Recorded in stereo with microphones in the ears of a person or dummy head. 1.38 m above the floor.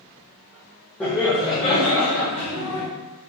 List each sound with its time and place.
1.0 s laughter: 10° left (ahead or behind), 0.9 m; by 2.9 s 70° left (ahead or behind), 1.7 m